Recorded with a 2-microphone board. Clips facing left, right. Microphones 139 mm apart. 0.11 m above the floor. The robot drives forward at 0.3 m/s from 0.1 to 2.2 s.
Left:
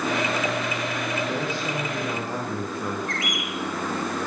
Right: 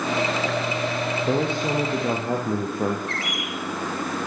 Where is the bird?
35° right (ahead or behind), 5.5 m.